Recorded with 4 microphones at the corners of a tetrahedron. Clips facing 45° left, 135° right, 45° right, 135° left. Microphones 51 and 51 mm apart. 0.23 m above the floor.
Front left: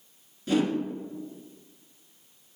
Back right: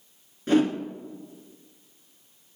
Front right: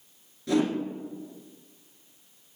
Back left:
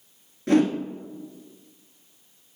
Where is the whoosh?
175° left, 1.4 m.